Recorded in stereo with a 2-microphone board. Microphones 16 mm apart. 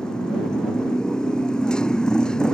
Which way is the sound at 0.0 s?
60° left (ahead or behind).